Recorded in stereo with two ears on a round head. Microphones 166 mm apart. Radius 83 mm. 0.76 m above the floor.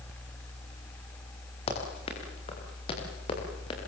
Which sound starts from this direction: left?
Running footsteps, at 1.7 s.